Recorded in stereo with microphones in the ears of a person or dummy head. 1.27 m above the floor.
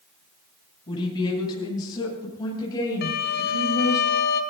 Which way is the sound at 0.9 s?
25° left (ahead or behind).